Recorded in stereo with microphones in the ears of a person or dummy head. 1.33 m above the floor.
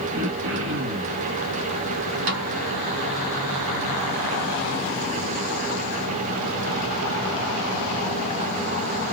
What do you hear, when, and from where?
0.1 s throat clearing: 80° right, 1.1 m
2.3 s a snare drum: 65° right (ahead or behind), 1.1 m